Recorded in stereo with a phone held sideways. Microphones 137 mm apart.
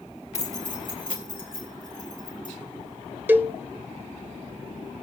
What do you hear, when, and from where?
0.3 s keys jangling: 55° left (ahead or behind), 1.3 m; by 2.5 s 90° left, 4.5 m
3.3 s a cowbell: 15° right (ahead or behind), 0.7 m